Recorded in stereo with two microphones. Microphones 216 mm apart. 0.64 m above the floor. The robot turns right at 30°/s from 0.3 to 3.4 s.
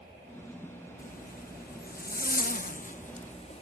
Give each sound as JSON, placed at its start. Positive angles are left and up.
{"t": 1.0, "sound": "a zipper", "azimuth_deg": 65, "distance_m": 0.7}